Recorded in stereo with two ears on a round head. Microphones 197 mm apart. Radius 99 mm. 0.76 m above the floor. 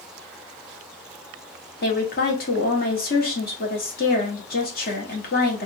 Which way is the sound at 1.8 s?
40° left (ahead or behind).